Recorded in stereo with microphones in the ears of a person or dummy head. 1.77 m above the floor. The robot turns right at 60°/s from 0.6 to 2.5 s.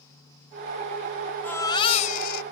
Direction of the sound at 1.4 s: 15° left.